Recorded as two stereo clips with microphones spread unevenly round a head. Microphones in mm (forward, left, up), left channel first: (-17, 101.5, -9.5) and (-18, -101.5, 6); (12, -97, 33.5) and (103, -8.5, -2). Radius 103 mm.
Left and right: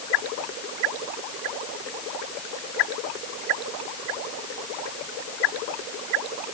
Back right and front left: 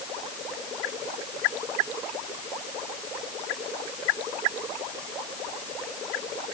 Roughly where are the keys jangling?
No keys jangling in this recording.